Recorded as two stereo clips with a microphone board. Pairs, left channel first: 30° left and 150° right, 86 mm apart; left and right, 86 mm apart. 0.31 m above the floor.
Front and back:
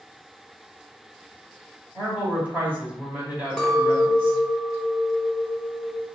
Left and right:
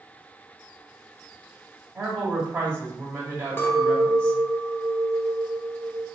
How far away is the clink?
About 0.8 m.